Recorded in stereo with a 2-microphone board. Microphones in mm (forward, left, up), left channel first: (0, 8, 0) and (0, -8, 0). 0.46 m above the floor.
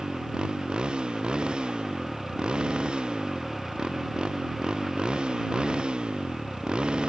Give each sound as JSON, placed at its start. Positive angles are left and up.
{"t": 0.0, "sound": "a motorcycle", "side_deg": -75}